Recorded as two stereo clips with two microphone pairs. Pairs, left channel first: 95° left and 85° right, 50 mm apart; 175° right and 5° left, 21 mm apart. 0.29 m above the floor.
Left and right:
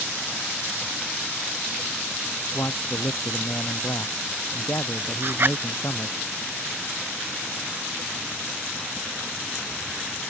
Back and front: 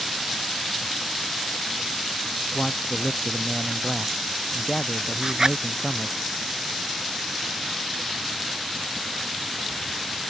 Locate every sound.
2.5 s a man speaking: 110° left; by 6.2 s 115° left
5.2 s a zipper: 50° right